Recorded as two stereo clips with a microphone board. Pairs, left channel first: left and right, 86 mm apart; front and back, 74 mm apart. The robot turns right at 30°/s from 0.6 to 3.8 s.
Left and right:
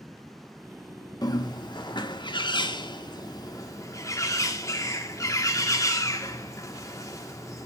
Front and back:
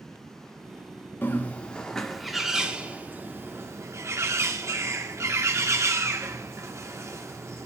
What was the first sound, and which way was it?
A bird, 60° left.